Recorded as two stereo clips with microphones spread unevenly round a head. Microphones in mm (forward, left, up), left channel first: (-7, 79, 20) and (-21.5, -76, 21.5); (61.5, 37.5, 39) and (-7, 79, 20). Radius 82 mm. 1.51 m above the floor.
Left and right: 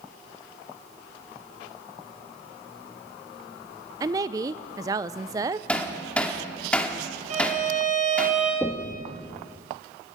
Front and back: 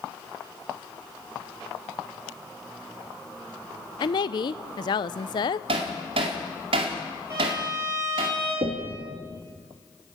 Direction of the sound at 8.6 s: 175° left.